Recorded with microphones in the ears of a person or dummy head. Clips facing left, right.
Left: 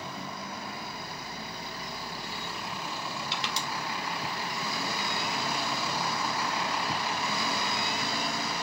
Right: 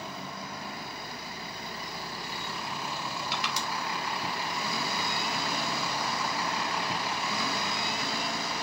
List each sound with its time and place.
3.3 s crushing: 30° left (ahead or behind), 3 m